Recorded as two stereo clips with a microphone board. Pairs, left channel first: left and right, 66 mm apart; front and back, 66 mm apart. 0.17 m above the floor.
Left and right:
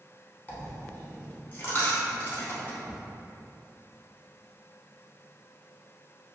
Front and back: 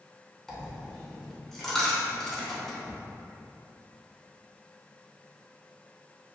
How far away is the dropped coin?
About 0.7 m.